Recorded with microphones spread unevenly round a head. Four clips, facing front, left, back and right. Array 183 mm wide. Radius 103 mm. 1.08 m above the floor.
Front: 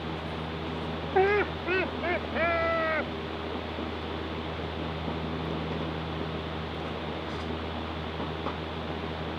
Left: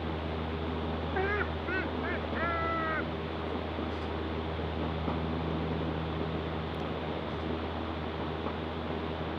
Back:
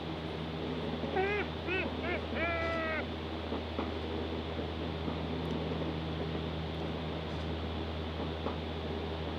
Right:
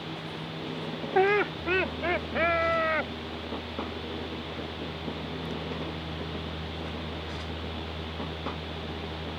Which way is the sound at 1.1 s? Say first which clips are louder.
Right 10 dB, front 11 dB; 45° right.